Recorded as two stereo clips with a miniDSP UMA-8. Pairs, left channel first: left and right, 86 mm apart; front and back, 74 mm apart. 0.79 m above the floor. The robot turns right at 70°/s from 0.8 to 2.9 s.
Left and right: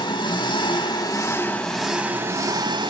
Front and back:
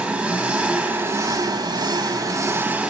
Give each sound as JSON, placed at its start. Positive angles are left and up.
{"t": 0.0, "sound": "an engine running", "azimuth_deg": 110, "distance_m": 2.0}